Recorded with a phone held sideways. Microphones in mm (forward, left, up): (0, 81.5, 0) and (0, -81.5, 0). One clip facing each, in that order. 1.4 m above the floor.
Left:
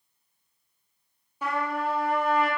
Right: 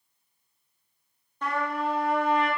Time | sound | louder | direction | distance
1.4 | a trumpet | even | 10° left (ahead or behind) | 0.6 m